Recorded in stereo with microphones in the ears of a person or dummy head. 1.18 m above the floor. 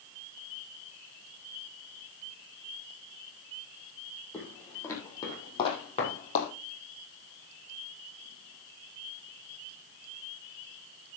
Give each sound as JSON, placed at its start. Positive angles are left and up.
{"t": 4.3, "sound": "footsteps", "side_deg": 10, "distance_m": 4.0}